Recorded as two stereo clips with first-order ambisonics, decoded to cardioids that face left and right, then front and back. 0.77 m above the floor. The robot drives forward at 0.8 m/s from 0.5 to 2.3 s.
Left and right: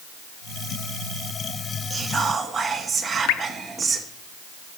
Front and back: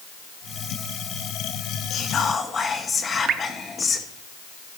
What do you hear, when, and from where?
1.9 s whispering: 25° right, 1.0 m; by 4.1 s 45° right, 0.9 m
3.3 s dripping: 120° left, 0.7 m